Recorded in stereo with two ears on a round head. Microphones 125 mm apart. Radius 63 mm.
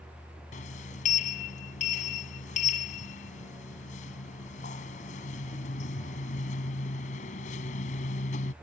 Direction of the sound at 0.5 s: 60° left (ahead or behind).